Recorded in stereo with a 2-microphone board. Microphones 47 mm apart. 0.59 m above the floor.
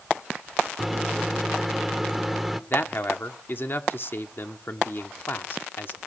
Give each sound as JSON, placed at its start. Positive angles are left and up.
{"t": 0.8, "sound": "a microwave", "side_deg": -5, "distance_m": 1.1}
{"t": 2.7, "sound": "a man speaking", "side_deg": 45, "distance_m": 1.7}